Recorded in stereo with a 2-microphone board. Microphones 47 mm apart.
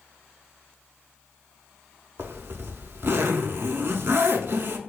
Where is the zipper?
55° right (ahead or behind), 0.5 m.